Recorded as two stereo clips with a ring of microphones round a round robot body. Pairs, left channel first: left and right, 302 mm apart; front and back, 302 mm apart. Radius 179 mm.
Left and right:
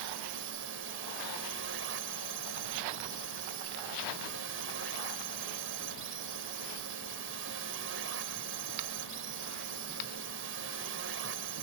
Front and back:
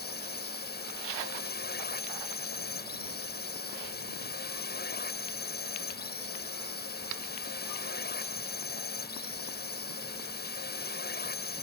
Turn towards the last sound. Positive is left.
turn(degrees=-50)